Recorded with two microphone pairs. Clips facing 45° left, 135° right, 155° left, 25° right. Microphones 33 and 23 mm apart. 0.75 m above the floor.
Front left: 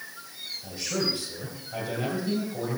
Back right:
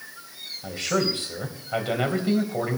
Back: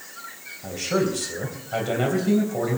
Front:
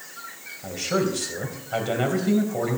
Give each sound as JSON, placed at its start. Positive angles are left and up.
{"t": 0.6, "sound": "a man speaking", "azimuth_deg": -105, "distance_m": 3.5}